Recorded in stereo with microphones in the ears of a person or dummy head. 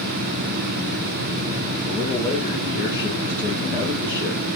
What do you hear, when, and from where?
1.9 s a man speaking: 10° right (ahead or behind), 0.7 m